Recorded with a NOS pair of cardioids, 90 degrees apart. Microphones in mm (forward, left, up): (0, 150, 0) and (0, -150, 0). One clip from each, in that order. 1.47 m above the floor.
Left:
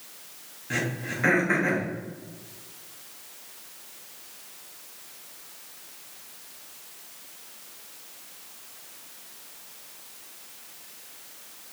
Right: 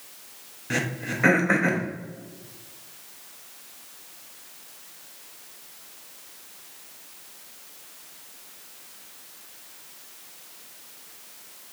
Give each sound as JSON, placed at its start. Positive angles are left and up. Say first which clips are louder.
{"t": 0.7, "sound": "throat clearing", "louder": "right 2 dB", "azimuth_deg": -30, "distance_m": 0.9}